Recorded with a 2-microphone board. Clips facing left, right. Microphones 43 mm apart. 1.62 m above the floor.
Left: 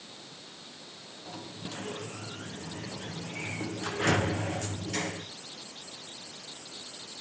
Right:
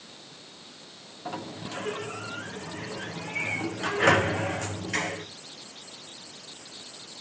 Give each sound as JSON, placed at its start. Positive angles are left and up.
{"t": 1.2, "sound": "a sliding door", "side_deg": -55, "distance_m": 1.2}